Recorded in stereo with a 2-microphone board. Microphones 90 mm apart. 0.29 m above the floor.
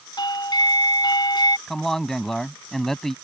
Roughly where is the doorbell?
Left.